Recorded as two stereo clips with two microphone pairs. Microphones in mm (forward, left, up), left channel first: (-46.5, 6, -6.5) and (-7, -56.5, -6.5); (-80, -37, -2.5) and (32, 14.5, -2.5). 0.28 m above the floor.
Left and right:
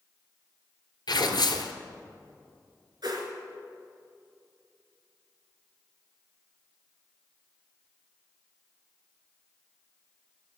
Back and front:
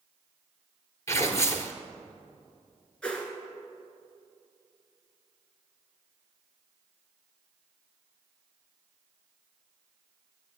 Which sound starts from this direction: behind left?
Tearing paper, at 1.1 s.